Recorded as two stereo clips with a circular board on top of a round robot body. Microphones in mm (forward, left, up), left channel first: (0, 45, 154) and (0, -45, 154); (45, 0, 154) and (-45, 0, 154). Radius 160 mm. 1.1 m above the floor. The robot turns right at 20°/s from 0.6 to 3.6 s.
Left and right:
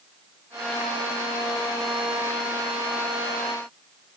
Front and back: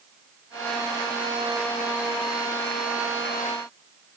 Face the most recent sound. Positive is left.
No sound to turn to.